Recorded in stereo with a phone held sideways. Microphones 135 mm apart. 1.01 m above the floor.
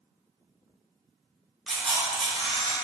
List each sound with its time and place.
1.7 s a camera shutter: 5° left (ahead or behind), 1.0 m